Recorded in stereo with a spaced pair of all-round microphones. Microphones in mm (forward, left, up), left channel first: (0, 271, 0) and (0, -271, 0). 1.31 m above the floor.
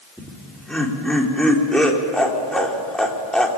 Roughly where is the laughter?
Centre.